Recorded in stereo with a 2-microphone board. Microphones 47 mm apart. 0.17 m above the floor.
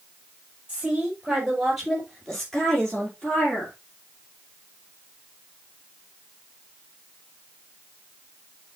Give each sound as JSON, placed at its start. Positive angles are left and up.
{"t": 0.7, "sound": "a woman speaking", "side_deg": -15, "distance_m": 4.5}